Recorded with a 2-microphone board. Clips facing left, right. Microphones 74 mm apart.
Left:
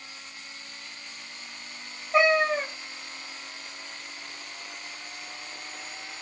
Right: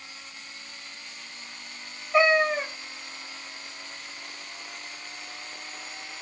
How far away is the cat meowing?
About 3 m.